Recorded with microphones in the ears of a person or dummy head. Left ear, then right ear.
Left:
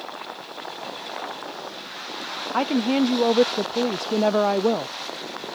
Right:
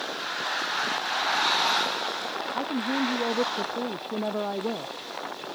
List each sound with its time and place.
2.5 s a woman speaking: 85° left